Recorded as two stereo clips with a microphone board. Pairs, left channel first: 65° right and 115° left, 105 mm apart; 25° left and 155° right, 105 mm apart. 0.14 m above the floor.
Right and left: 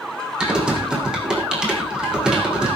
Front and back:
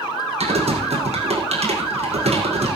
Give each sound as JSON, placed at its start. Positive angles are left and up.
{"t": 0.4, "sound": "typing on a keyboard", "azimuth_deg": -165, "distance_m": 4.5}